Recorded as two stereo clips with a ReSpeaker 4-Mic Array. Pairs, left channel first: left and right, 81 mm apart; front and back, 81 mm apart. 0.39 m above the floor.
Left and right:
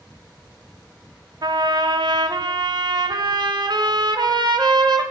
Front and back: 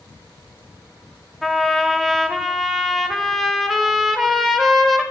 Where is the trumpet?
90° right, 0.7 m.